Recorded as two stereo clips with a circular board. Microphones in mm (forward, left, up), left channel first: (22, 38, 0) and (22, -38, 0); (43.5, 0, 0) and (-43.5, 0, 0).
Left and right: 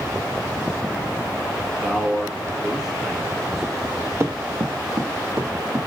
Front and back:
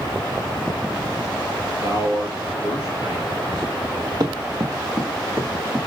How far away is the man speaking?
About 1.8 m.